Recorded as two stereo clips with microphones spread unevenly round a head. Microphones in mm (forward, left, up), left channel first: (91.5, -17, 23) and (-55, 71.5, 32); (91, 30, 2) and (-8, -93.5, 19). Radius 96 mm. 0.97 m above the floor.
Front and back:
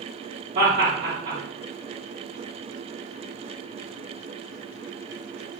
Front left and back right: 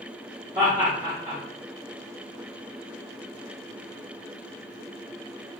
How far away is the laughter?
About 1.2 m.